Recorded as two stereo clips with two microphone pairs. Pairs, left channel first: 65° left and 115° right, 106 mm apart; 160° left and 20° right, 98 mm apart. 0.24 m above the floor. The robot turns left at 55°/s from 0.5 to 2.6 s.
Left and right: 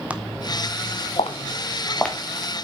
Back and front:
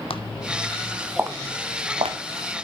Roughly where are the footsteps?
Behind.